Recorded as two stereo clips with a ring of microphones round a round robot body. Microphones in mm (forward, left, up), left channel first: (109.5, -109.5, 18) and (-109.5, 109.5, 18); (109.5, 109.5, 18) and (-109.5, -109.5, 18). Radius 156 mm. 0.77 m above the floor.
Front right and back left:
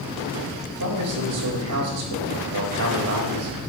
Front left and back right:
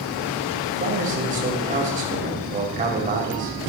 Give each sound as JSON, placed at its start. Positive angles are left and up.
{"t": 0.7, "sound": "a man speaking", "azimuth_deg": 165, "distance_m": 4.0}